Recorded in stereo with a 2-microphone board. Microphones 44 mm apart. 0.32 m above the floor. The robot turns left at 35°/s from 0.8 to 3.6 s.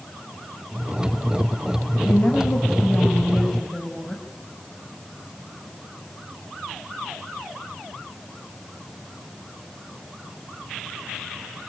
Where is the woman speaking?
65° left, 2.5 m; by 4.2 s 10° left, 2.5 m.